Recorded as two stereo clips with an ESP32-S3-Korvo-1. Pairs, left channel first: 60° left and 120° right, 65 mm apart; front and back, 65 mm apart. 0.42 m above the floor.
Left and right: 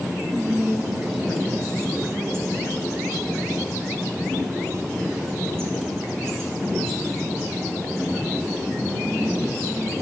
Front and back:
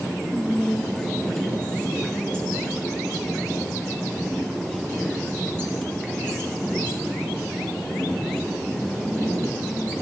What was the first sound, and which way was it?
Whispering, 80° right.